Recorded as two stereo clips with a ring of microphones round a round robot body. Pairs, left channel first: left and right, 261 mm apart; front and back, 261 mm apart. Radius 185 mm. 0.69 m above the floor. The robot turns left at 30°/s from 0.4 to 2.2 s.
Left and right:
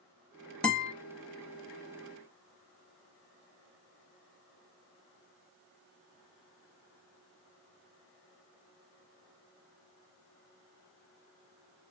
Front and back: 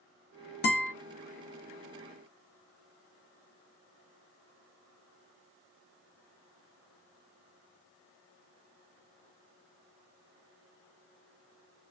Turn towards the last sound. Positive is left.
turn(degrees=-40)